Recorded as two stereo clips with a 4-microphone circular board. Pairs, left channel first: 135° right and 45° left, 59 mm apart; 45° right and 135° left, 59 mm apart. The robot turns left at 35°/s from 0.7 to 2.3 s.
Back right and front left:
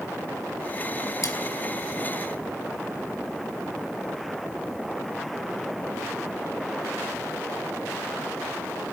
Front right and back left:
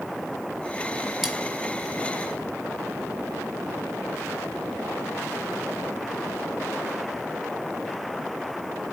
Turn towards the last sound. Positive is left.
turn(degrees=180)